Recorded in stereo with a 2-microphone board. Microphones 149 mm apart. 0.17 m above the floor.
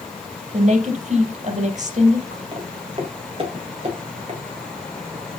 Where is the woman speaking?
50° right (ahead or behind), 4 m.